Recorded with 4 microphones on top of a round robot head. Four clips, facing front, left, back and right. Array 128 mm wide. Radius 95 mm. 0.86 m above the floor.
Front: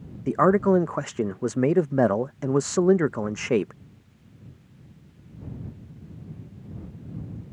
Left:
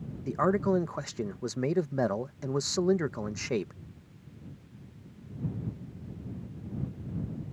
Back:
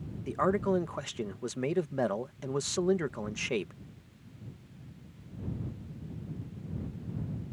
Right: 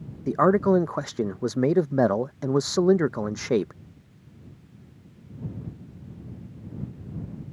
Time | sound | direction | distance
0.3 | a man speaking | 40° right | ?